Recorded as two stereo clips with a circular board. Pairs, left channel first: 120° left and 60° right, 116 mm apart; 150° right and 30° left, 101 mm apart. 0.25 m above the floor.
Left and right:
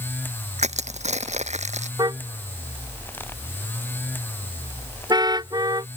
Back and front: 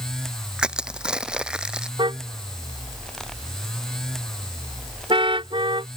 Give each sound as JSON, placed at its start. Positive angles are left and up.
{"t": 0.6, "sound": "crushing", "azimuth_deg": -50}
{"t": 2.0, "sound": "a car horn", "azimuth_deg": -5}